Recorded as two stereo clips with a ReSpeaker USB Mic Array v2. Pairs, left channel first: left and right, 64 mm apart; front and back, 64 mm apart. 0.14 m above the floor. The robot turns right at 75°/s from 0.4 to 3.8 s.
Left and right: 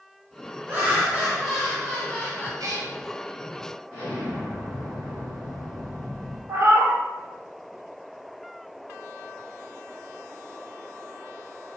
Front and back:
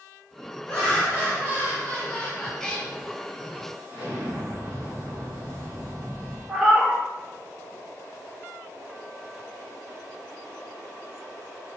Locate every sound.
0.7 s laughter: 70° right, 1.6 m; by 2.5 s 70° left, 1.6 m
2.6 s a cat meowing: 85° right, 0.6 m; by 2.9 s 60° right, 0.6 m
3.9 s an explosion: 115° left, 1.8 m
6.5 s a cat meowing: 100° right, 0.7 m